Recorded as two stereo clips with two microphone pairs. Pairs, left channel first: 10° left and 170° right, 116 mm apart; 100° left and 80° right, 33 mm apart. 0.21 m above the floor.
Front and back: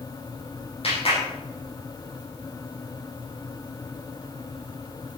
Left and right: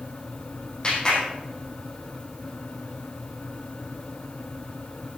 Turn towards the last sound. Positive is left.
turn(degrees=35)